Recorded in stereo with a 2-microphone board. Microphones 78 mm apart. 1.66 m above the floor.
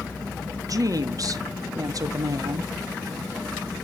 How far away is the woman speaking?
About 1.1 m.